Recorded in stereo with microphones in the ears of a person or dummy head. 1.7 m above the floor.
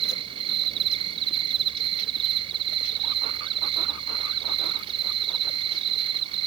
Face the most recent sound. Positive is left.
turn(degrees=-30)  # may be behind; listen again after turning